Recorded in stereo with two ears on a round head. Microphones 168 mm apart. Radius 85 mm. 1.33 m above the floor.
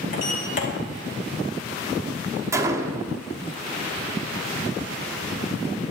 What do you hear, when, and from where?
0.1 s a sliding door: 50° left (ahead or behind), 1.9 m
2.5 s a gunshot: 15° right (ahead or behind), 0.9 m